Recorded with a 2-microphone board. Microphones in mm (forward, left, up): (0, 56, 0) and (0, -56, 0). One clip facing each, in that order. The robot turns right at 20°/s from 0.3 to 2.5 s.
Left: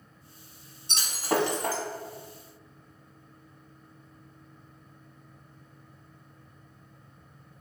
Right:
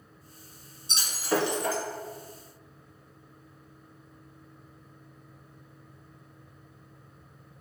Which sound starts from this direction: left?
Breaking glass, at 0.9 s.